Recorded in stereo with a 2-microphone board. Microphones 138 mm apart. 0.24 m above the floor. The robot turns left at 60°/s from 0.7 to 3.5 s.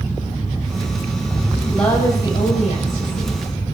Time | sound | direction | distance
1.7 | a woman speaking | straight behind | 6.5 m